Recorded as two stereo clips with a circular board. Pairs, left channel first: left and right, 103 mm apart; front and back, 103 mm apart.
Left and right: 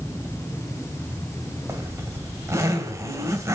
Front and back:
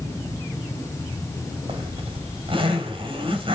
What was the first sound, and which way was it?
A zipper, 150° right.